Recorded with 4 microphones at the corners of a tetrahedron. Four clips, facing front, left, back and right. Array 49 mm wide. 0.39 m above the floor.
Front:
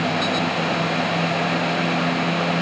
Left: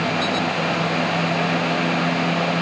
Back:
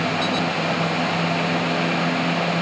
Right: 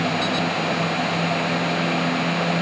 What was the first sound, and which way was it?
Only background noise.